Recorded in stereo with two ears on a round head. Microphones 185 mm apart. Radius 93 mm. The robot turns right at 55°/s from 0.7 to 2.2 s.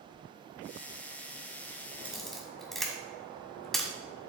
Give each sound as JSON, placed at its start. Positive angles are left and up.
{"t": 2.0, "sound": "a camera shutter", "side_deg": -5, "distance_m": 1.7}